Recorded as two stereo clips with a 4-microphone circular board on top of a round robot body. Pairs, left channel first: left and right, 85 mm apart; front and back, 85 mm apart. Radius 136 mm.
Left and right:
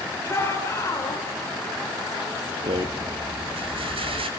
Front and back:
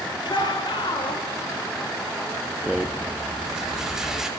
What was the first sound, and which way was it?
A shout, 30° left.